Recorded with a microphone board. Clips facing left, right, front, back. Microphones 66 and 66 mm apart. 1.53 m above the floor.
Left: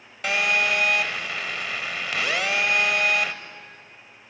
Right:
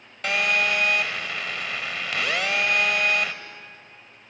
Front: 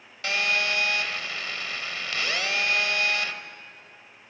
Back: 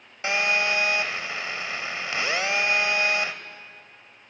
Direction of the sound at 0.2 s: Straight behind.